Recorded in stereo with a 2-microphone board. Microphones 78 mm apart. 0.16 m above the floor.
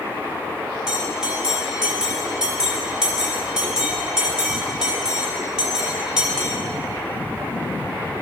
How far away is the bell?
About 3 m.